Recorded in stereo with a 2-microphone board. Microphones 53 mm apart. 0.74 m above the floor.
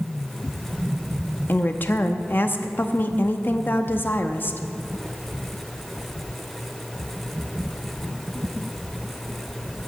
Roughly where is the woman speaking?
Left.